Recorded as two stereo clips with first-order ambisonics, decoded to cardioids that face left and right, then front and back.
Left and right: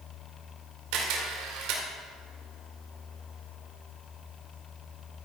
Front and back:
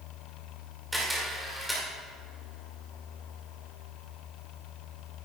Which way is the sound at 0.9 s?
90° right.